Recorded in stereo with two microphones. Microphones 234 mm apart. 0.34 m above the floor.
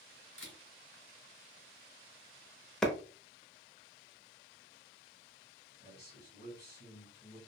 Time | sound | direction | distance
0.4 | a camera shutter | 55° left (ahead or behind) | 1.4 m
2.8 | a clap | 5° left (ahead or behind) | 0.6 m
5.8 | a man speaking | 45° left (ahead or behind) | 1.7 m